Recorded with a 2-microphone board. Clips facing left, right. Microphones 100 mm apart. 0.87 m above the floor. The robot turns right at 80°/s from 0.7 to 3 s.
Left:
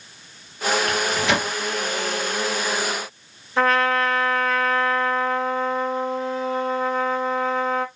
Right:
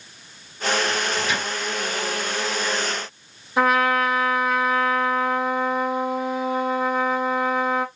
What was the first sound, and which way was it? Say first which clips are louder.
A microwave: left 3 dB; 70° left (ahead or behind).